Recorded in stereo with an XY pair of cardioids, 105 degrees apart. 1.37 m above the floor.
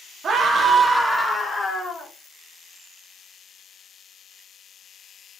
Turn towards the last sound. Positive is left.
turn(degrees=30)